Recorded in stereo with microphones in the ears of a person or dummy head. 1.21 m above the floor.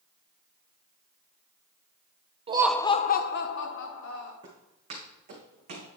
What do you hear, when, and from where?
2.5 s laughter: 25° right (ahead or behind), 0.5 m; by 4.3 s 75° left (ahead or behind), 1.9 m
4.4 s footsteps: 30° right (ahead or behind), 3 m; by 5.9 s 40° right (ahead or behind), 3.5 m